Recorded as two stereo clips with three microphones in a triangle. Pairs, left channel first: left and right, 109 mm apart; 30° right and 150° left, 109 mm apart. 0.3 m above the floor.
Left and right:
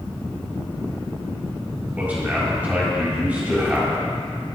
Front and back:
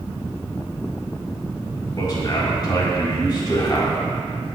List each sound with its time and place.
2.0 s a man speaking: 20° right, 2.0 m